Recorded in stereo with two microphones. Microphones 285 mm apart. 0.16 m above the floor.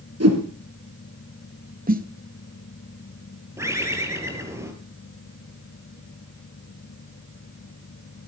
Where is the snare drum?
30° right (ahead or behind), 0.8 m.